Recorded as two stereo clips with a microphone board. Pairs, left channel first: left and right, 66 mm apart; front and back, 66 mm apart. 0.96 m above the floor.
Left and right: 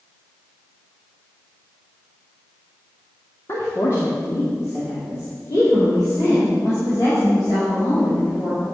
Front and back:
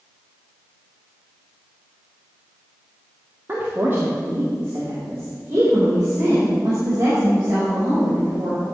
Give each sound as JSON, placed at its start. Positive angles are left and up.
{"t": 3.5, "sound": "a woman speaking", "azimuth_deg": 125, "distance_m": 1.8}